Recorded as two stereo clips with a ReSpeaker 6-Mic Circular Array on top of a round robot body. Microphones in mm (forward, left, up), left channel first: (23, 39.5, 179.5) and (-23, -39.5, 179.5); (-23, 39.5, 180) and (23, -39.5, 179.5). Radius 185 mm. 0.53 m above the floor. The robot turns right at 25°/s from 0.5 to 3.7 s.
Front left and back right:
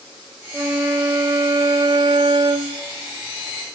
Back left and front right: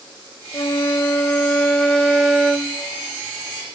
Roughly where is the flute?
Behind.